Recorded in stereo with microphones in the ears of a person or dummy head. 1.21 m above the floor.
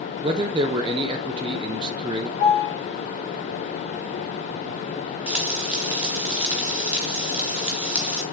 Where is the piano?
60° left (ahead or behind), 4 m.